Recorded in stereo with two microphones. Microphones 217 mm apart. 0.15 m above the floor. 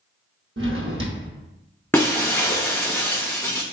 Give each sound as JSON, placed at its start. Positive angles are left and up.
{"t": 0.6, "sound": "a drawer", "side_deg": -70, "distance_m": 1.3}
{"t": 1.9, "sound": "breaking glass", "side_deg": 10, "distance_m": 0.8}